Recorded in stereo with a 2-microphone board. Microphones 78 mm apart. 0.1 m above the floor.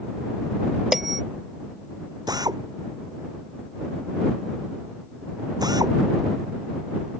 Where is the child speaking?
I don't hear a child speaking.